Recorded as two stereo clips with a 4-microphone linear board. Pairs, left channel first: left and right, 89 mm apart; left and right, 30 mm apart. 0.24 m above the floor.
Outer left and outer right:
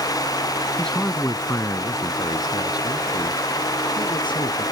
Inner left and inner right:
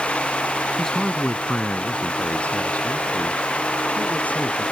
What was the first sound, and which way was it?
A man speaking, 5° left (ahead or behind).